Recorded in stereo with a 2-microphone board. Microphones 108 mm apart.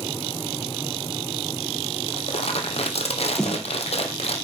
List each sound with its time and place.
2.1 s crumpling: 70° left (ahead or behind), 1.7 m
3.4 s a snare drum: 5° left (ahead or behind), 1.2 m